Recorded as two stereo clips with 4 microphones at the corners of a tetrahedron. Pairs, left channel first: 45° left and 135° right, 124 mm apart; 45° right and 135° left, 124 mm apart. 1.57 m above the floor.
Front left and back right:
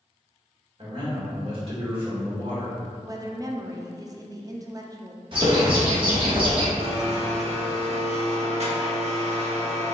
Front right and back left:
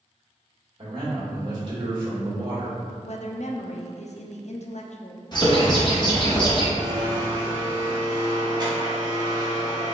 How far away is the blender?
About 1.1 m.